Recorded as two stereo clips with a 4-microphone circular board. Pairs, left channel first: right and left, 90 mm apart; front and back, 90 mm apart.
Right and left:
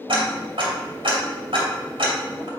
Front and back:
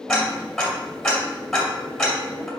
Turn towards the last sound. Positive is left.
turn(degrees=85)